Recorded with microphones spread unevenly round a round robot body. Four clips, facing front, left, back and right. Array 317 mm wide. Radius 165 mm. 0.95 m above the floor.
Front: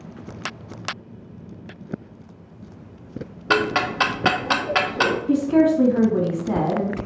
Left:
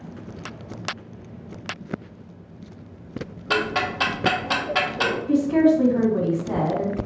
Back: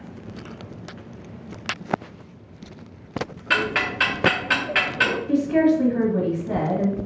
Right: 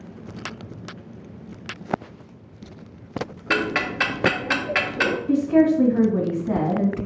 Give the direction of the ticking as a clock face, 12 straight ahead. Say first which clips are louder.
Left 1 dB, front 4 dB; 12 o'clock.